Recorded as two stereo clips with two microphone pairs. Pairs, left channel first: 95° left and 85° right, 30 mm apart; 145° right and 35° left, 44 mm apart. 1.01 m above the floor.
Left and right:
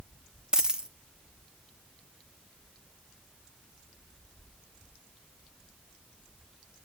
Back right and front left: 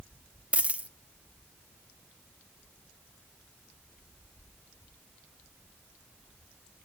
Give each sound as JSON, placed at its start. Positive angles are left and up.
{"t": 0.5, "sound": "a dropped coin", "azimuth_deg": -25, "distance_m": 0.9}